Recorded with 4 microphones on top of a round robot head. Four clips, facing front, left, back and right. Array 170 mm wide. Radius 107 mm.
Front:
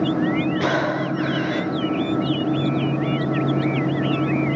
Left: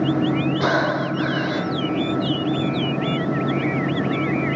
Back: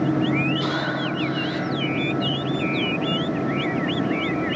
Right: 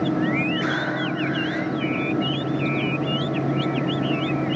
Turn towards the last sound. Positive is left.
turn(degrees=55)